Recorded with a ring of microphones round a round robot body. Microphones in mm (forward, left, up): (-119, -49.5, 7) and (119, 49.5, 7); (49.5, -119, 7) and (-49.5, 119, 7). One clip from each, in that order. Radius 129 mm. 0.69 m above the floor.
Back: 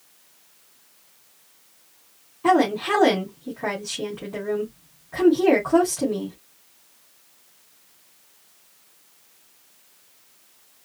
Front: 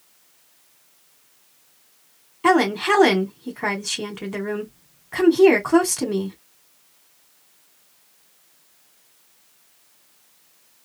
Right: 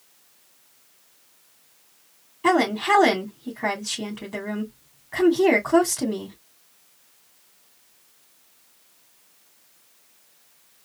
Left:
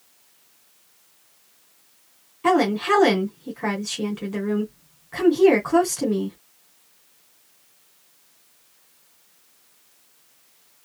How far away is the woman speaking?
About 2 m.